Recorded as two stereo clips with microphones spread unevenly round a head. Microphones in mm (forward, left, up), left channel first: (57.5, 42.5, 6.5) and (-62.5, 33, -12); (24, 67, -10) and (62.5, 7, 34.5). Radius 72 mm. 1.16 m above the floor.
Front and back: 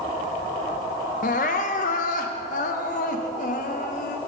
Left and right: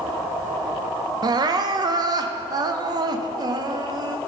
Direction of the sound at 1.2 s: 35° right.